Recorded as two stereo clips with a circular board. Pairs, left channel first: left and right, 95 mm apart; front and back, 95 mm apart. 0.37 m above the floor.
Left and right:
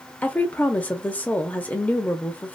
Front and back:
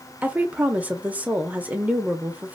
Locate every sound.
0.2 s a woman speaking: 135° left, 0.8 m